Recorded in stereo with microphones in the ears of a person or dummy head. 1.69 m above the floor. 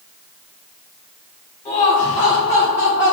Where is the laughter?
20° left (ahead or behind), 1.3 m; by 3.1 s 5° right (ahead or behind), 1.7 m.